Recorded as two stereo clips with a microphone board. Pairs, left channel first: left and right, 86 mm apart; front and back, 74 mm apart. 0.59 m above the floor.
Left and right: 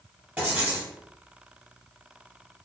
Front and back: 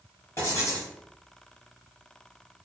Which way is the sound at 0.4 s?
25° right.